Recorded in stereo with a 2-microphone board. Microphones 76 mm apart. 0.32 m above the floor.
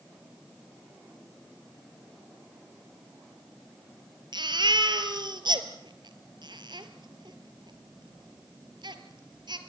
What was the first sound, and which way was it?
A baby crying, 80° right.